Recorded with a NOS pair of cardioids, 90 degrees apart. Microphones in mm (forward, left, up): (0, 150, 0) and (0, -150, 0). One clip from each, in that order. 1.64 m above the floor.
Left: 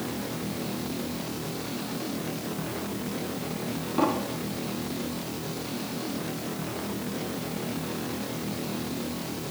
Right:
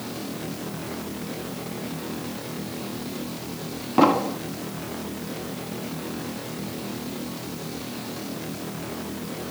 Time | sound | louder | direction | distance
4.0 | an explosion | right 8 dB | 60° right | ?